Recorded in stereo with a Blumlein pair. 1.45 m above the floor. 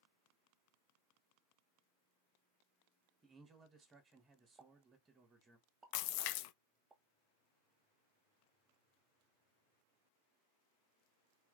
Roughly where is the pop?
Ahead.